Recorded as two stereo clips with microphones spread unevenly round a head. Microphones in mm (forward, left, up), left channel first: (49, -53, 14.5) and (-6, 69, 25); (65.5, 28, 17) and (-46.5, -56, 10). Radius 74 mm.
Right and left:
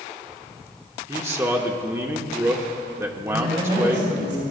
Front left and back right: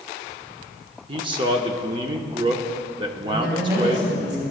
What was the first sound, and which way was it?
A man speaking, straight behind.